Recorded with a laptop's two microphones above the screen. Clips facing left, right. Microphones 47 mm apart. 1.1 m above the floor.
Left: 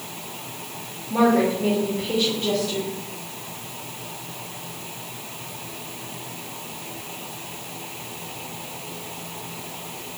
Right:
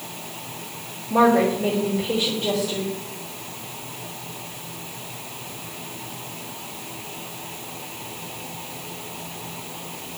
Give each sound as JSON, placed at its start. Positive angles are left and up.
{"t": 1.1, "sound": "a woman speaking", "side_deg": -10, "distance_m": 3.0}